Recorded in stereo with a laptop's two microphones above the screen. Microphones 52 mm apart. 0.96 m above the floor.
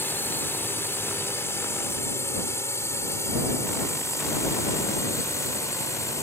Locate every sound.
0.0 s a drone: 45° left (ahead or behind); by 6.2 s 70° left (ahead or behind)